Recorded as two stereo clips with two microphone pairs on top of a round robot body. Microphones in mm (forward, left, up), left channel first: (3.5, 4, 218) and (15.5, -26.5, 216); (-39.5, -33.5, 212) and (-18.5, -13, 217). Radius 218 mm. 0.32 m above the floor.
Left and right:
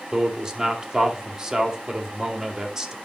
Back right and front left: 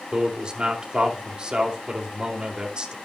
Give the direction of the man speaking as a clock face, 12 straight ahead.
12 o'clock.